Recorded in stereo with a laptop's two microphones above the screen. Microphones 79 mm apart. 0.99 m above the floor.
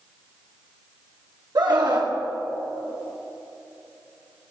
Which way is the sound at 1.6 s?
60° right (ahead or behind).